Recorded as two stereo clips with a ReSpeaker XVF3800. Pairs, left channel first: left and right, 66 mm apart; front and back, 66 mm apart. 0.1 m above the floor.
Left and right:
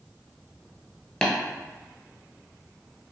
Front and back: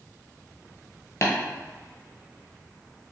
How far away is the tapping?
About 0.7 m.